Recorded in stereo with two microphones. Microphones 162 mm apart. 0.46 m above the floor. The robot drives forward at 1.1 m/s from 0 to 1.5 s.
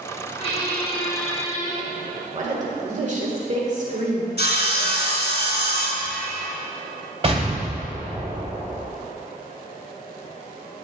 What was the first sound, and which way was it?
A squeak, 40° left (ahead or behind).